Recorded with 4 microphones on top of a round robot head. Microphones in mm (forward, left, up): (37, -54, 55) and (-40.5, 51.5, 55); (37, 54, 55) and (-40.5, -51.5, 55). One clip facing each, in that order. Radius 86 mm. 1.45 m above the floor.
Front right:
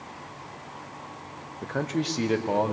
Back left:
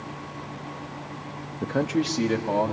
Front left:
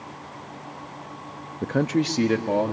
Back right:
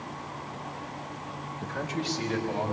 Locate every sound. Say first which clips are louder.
1.6 s a man speaking: back left 4 dB, front left 11 dB; 70° left, 0.5 m; by 2.7 s 25° left, 1.5 m